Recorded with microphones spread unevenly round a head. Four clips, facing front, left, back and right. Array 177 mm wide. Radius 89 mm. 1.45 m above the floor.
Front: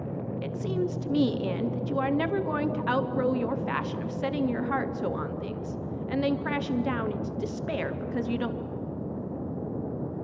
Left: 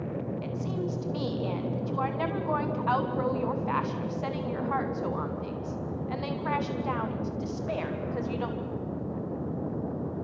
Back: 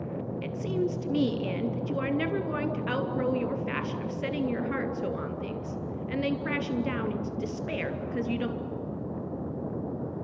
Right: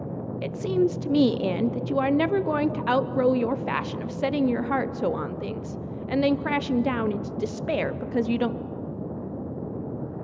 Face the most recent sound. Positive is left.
turn(degrees=-85)